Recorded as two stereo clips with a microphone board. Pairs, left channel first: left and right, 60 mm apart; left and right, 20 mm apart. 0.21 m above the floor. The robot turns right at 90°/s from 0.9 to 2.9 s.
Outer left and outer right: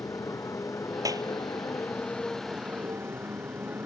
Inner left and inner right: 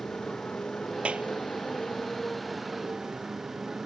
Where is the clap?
65° right (ahead or behind); by 1.3 s 75° right (ahead or behind).